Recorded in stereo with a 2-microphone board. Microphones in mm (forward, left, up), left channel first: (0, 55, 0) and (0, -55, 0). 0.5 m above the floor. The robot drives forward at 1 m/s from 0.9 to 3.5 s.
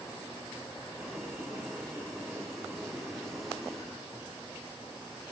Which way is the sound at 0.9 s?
Centre (ahead or behind).